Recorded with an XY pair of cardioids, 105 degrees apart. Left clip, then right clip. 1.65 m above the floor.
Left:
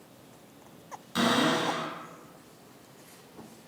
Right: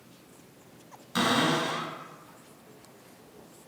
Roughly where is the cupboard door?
Ahead right.